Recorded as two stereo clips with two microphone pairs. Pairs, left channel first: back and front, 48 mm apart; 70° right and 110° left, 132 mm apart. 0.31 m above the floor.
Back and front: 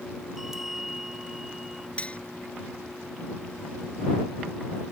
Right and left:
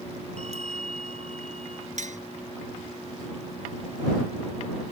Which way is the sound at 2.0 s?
120° left.